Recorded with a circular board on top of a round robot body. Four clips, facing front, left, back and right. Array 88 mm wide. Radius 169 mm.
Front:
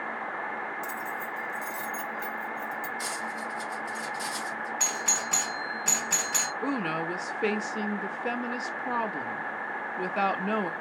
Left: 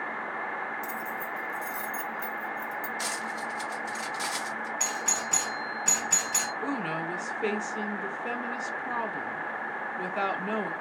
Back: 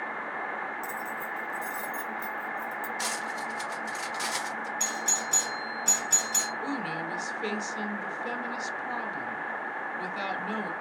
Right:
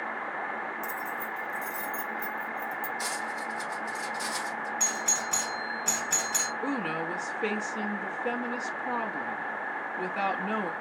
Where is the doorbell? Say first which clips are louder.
Even, front 1 dB; 20° left, 2.5 m.